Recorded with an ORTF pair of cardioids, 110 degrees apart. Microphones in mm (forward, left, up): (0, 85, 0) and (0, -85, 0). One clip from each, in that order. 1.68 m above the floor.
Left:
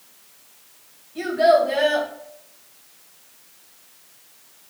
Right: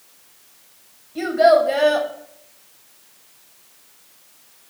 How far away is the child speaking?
About 1.6 m.